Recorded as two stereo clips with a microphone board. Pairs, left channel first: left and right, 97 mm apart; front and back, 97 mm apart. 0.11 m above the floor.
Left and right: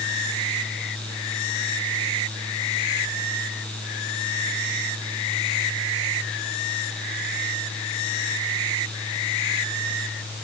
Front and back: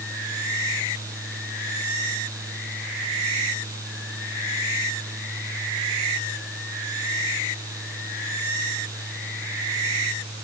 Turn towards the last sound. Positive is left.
No sound to turn to.